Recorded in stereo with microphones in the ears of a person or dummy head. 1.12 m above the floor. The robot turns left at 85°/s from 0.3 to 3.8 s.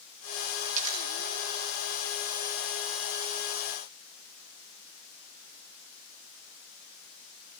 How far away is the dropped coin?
About 1.4 m.